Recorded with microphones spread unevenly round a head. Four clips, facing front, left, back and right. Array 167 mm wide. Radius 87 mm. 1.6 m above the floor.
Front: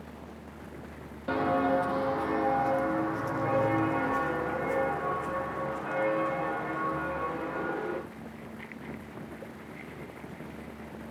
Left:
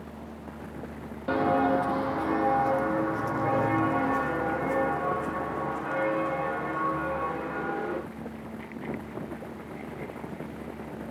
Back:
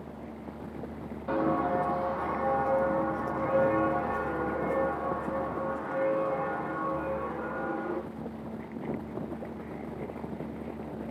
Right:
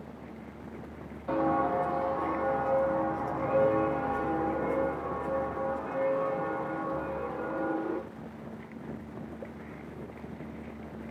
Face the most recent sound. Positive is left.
turn(degrees=60)